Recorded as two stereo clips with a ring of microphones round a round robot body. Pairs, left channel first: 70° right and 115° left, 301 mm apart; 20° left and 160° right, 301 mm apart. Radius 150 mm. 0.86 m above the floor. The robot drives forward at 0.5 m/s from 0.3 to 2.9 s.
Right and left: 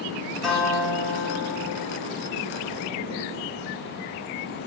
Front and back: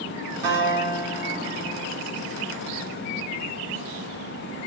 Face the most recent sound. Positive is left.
turn(degrees=-160)